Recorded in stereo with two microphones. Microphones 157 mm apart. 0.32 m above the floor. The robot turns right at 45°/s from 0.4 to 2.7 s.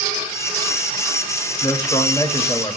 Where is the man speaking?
60° left, 1.2 m; by 2.8 s 110° left, 1.2 m.